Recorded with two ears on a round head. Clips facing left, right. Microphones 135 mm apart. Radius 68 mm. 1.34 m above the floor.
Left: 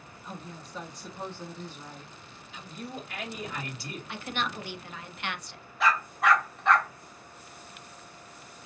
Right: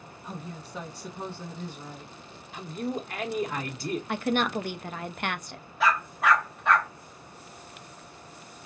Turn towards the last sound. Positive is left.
turn(degrees=0)  # may be behind; listen again after turning